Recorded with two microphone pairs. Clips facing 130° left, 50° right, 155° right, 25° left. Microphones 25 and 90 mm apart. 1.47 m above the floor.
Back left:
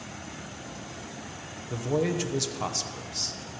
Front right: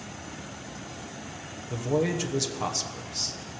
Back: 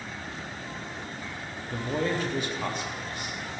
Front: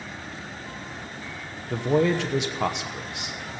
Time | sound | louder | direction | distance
1.7 | a man speaking | front right 1 dB, front 7 dB | 35° left | 1.0 m